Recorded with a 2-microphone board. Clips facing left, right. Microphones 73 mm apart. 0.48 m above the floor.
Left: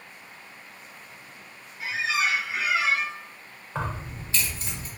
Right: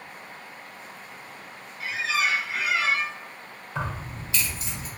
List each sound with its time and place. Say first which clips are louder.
1.8 s a squeak: even; 15° left (ahead or behind), 0.8 m
3.8 s keys jangling: even; 40° left (ahead or behind), 1.3 m